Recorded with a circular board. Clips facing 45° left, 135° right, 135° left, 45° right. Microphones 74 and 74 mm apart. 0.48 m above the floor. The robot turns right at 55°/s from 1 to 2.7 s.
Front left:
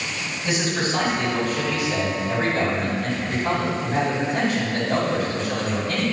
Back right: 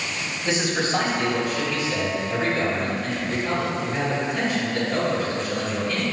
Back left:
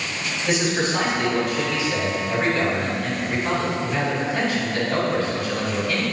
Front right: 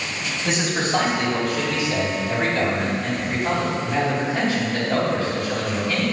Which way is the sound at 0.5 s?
80° right.